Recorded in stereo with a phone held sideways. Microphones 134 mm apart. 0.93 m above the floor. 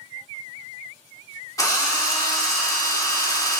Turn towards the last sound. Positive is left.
turn(degrees=25)  # may be behind; listen again after turning